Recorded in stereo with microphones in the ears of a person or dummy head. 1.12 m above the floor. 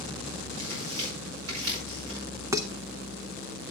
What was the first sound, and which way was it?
Tearing paper, 85° right.